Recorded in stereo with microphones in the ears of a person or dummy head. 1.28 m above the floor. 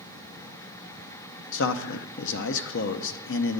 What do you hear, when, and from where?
1.5 s a man speaking: 65° left (ahead or behind), 0.6 m